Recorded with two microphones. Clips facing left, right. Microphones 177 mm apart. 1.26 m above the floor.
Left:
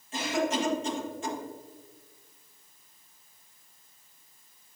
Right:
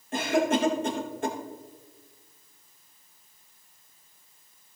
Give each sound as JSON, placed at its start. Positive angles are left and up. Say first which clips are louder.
{"t": 0.1, "sound": "a cough", "louder": "right 4 dB", "side_deg": -55, "distance_m": 1.7}